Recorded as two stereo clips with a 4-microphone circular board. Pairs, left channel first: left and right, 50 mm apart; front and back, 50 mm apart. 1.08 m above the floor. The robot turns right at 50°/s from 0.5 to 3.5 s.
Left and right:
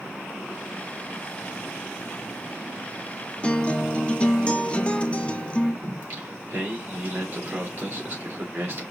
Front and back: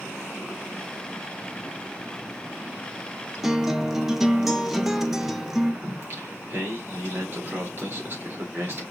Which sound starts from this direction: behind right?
Singing, at 5.8 s.